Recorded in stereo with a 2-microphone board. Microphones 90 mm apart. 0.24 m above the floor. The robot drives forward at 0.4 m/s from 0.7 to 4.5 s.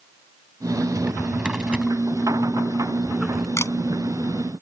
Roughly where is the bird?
No bird in this recording.